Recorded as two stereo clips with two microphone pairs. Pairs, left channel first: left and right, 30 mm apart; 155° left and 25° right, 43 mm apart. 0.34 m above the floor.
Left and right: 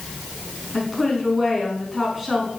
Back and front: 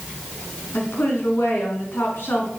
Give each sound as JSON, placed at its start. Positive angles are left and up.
{"t": 0.7, "sound": "a woman speaking", "azimuth_deg": 180, "distance_m": 3.5}